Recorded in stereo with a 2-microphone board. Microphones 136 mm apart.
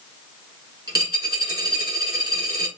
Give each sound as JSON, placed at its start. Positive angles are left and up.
{"t": 0.9, "sound": "a dropped coin", "side_deg": -40, "distance_m": 3.5}